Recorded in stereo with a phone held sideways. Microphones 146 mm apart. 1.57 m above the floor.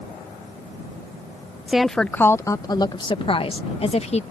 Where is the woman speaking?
5° right (ahead or behind); by 4.2 s 45° left (ahead or behind).